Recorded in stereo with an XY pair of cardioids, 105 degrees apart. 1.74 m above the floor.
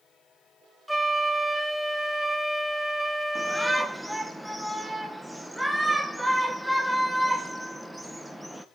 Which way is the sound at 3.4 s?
5° right.